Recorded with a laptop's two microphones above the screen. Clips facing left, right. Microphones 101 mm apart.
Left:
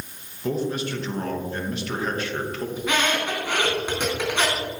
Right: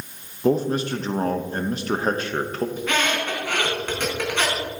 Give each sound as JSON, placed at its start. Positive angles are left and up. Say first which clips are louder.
{"t": 0.4, "sound": "a man speaking", "louder": "right 5 dB", "side_deg": -40, "distance_m": 1.0}
{"t": 2.8, "sound": "a squeak", "louder": "left 3 dB", "side_deg": 15, "distance_m": 3.5}